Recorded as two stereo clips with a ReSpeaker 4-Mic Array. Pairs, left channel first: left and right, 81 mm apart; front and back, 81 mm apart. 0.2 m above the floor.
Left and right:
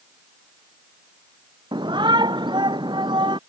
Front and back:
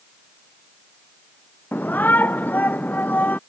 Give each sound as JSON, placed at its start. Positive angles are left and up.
{"t": 1.7, "sound": "a shout", "azimuth_deg": -65}